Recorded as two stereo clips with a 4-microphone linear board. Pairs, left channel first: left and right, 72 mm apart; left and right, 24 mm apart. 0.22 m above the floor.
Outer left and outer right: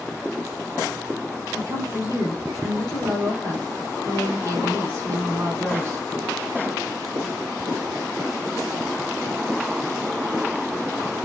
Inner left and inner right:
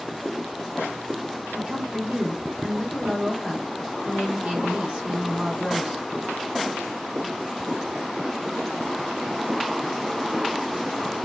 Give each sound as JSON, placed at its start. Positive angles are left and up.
{"t": 1.5, "sound": "a woman speaking", "side_deg": -45, "distance_m": 1.5}